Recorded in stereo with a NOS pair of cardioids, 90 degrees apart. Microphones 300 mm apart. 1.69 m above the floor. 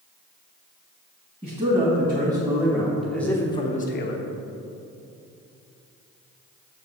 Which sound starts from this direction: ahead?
A man speaking, at 1.4 s.